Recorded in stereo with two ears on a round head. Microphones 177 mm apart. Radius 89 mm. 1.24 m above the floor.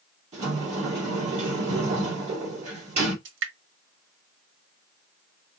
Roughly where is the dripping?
Right.